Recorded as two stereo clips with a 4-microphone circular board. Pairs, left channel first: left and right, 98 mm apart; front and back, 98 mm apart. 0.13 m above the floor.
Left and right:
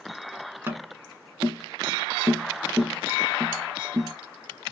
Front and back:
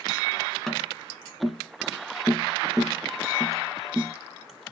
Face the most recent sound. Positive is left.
turn(degrees=-80)